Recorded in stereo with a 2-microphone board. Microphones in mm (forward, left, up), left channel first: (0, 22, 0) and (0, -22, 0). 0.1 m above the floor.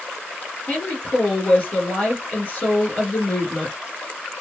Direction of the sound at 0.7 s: 30° left (ahead or behind).